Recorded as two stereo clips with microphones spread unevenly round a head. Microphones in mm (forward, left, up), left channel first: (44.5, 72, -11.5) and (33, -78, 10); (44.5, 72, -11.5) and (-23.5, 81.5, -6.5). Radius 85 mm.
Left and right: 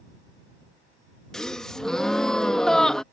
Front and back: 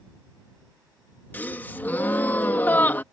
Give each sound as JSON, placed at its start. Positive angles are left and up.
{"t": 1.3, "sound": "a gasp", "azimuth_deg": -20}